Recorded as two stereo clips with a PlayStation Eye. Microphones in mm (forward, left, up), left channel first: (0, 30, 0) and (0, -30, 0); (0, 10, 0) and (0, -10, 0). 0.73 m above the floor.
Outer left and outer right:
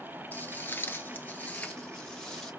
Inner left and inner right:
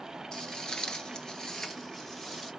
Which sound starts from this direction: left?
Footsteps, at 0.3 s.